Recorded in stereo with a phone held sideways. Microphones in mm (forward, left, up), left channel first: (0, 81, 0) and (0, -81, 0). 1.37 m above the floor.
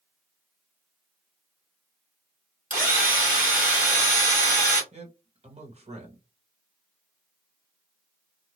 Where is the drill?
55° right (ahead or behind), 1.6 m.